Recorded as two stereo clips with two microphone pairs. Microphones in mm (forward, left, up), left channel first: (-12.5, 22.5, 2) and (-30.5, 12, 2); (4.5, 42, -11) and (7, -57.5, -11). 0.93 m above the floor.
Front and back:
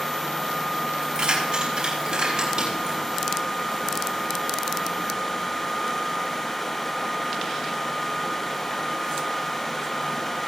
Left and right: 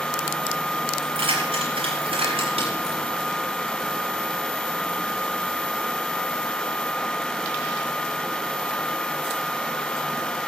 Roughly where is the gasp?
No gasp in this recording.